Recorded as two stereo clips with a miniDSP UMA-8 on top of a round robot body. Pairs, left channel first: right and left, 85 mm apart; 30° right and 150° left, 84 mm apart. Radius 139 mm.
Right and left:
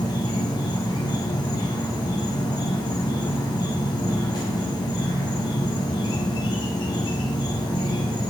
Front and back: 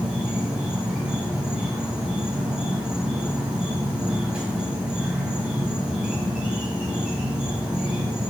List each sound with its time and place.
0.0 s an insect: 130° right, 1.2 m